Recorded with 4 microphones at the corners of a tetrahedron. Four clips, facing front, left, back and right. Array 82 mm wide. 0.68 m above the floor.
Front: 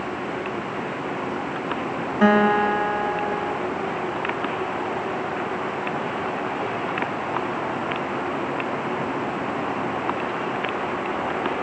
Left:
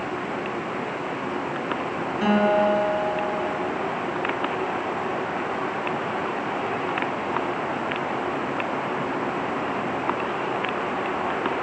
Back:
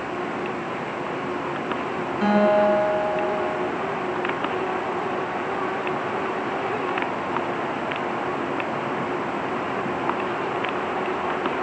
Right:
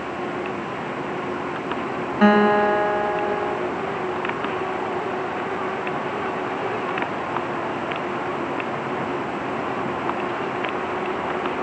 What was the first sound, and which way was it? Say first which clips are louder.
A guitar: right 4 dB, front 1 dB; 70° right.